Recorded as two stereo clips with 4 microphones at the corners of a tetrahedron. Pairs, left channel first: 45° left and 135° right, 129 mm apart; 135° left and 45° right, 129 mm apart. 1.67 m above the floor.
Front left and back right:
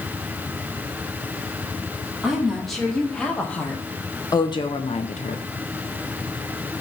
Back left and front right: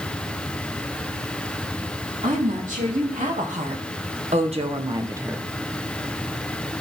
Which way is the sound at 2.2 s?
45° right.